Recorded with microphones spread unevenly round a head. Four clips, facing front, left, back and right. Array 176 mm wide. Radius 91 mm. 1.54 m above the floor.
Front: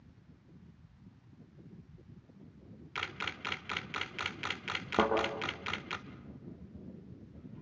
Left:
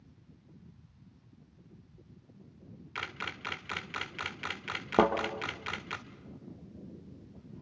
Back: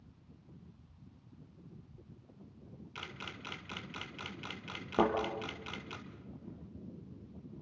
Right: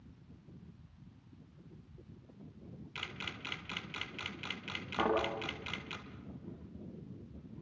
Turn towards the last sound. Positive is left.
turn(degrees=85)